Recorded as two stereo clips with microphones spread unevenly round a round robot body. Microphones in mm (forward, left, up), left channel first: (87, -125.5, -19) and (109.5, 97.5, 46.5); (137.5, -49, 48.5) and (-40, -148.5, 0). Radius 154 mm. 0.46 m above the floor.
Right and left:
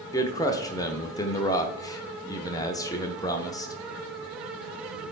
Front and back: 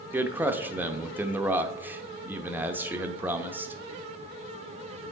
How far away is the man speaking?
About 0.8 m.